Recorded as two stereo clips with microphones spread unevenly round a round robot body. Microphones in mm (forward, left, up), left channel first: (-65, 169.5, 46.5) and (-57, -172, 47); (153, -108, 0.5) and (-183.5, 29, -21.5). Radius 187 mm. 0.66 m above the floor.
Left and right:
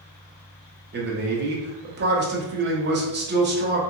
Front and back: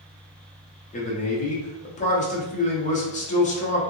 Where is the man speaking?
80° right, 0.7 m.